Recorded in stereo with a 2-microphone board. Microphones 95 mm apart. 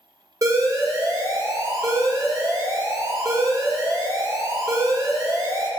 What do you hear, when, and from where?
0.4 s an alarm: 35° right (ahead or behind), 1.0 m